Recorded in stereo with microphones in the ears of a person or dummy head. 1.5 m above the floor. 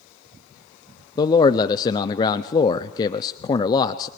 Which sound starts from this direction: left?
A man speaking, at 1.2 s.